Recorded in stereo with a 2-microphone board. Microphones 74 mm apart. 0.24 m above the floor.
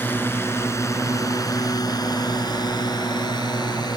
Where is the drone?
25° left (ahead or behind); by 4.0 s 70° left (ahead or behind).